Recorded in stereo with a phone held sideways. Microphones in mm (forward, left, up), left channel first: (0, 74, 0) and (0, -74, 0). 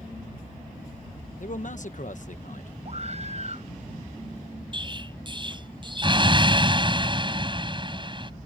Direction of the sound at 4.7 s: 35° right (ahead or behind).